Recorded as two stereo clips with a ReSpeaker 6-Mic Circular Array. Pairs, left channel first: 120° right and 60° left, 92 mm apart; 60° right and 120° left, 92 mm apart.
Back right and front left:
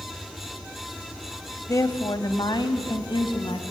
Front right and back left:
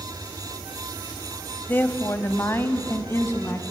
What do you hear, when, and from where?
1.7 s a woman speaking: 110° right, 1.2 m; by 3.6 s 115° right, 2 m